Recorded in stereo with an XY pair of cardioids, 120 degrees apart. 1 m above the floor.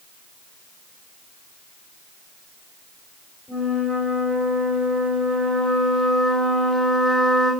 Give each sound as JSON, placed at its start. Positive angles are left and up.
{"t": 3.5, "sound": "a flute", "azimuth_deg": 10, "distance_m": 6.0}